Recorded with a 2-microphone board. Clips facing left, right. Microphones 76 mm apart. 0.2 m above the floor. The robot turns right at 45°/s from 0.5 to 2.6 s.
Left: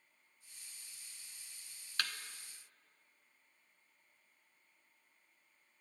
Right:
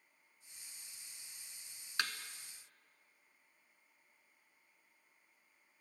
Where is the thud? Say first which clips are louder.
Right 2 dB; 20° right (ahead or behind), 0.7 m; by 2.1 s 25° right (ahead or behind), 0.7 m.